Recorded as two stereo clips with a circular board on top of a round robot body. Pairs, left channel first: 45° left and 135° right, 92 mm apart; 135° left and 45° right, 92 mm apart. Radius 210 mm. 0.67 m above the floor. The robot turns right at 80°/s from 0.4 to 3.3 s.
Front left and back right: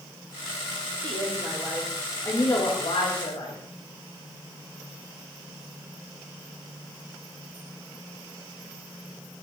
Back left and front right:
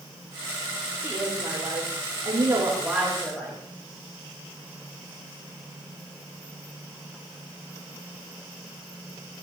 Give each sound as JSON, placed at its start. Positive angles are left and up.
{"t": 1.0, "sound": "a woman speaking", "azimuth_deg": -120, "distance_m": 5.0}